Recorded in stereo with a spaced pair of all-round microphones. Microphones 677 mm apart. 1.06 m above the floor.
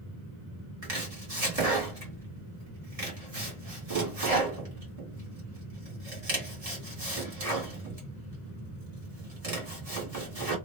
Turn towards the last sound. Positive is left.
turn(degrees=-55)  # may be behind; listen again after turning